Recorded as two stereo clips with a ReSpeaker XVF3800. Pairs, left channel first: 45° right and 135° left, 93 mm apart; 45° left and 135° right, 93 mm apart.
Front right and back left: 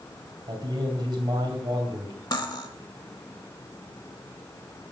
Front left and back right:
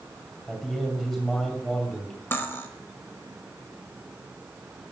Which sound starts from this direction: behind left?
A man speaking, at 0.5 s.